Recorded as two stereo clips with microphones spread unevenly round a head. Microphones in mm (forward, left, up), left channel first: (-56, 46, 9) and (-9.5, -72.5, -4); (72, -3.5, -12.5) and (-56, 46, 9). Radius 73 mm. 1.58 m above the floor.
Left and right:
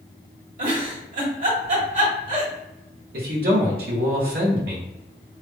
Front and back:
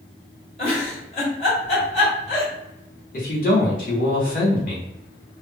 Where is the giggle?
65° right, 1.7 m.